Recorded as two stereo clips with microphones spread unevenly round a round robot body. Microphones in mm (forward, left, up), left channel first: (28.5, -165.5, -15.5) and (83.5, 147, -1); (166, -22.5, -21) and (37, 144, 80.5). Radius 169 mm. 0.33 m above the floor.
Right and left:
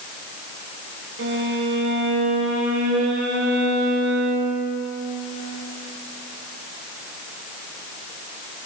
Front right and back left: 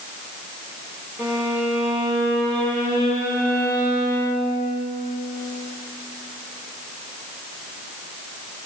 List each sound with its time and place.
1.2 s a violin: 30° left, 6 m